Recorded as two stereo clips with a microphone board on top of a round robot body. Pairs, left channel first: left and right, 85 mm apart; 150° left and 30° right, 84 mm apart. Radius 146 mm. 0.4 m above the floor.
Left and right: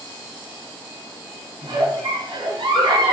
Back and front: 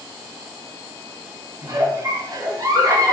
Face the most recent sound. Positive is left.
turn(degrees=-75)